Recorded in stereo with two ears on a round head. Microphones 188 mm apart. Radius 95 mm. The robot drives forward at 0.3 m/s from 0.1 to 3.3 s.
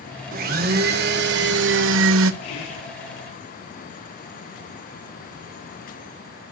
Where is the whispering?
90° left, 3 m.